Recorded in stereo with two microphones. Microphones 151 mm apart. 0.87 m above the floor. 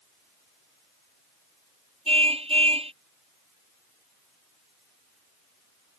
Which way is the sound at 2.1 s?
40° right (ahead or behind).